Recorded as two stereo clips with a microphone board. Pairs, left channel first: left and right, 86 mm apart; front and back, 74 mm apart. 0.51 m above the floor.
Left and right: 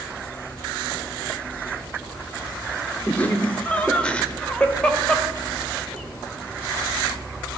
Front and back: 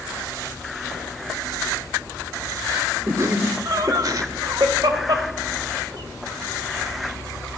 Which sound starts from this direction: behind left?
Laughter, at 3.1 s.